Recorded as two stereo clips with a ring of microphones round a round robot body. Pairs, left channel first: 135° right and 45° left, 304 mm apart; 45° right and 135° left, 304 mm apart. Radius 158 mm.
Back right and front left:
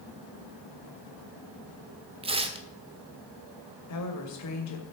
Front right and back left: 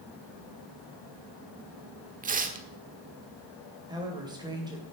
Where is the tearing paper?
100° left, 1.3 m.